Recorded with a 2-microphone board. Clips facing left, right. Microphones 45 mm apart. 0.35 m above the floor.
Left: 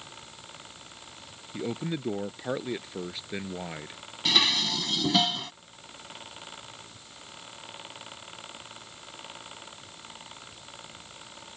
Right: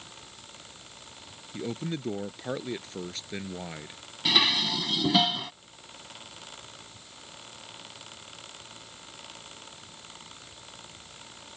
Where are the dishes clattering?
5° right (ahead or behind).